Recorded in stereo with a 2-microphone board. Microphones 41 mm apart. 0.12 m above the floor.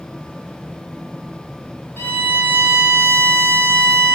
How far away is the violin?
About 0.6 m.